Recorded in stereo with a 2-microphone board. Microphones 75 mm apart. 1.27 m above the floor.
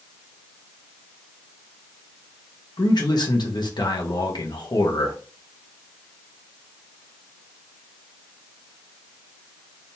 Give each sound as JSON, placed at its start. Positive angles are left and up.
{"t": 2.8, "sound": "a man speaking", "side_deg": 70, "distance_m": 1.2}